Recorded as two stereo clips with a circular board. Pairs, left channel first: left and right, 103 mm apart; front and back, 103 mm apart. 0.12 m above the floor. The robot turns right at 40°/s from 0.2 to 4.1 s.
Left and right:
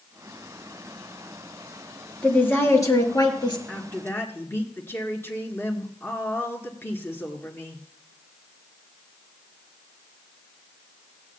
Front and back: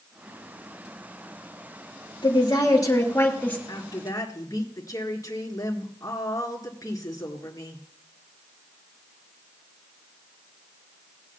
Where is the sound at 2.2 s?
15° left, 2.5 m; by 3.6 s 70° left, 2.5 m.